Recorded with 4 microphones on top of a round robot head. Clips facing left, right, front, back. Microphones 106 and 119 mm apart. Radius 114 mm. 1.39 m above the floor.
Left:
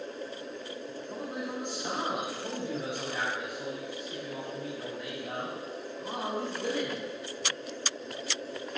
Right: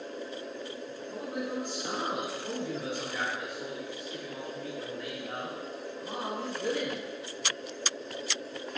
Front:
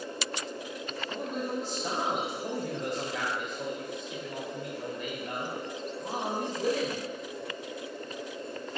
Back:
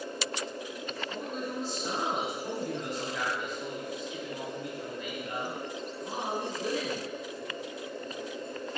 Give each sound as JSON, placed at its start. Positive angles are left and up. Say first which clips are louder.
{"t": 1.1, "sound": "a man speaking", "louder": "right 2 dB, front 4 dB", "azimuth_deg": 20, "distance_m": 3.0}